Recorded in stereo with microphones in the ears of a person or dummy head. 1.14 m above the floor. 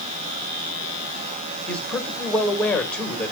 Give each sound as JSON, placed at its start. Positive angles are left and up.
{"t": 1.7, "sound": "a man speaking", "side_deg": 5, "distance_m": 1.9}